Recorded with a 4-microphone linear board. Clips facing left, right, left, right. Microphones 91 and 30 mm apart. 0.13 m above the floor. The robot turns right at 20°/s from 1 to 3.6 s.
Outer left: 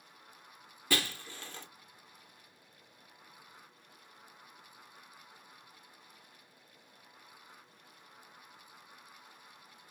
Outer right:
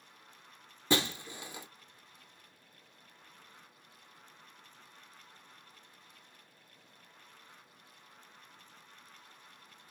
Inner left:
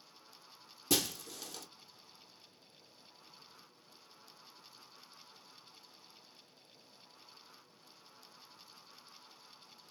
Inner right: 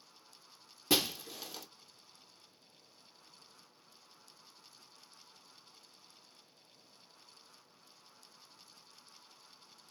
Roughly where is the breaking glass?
Right.